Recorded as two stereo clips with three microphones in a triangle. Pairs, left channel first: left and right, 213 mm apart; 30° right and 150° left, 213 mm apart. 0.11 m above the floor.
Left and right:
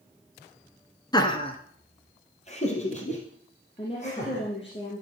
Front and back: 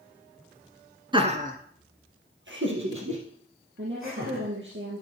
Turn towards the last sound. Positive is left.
turn(degrees=150)